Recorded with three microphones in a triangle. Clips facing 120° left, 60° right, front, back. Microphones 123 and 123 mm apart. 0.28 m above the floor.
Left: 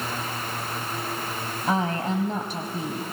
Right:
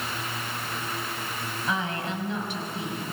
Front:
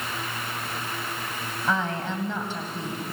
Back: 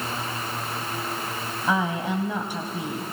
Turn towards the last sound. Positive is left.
turn(degrees=110)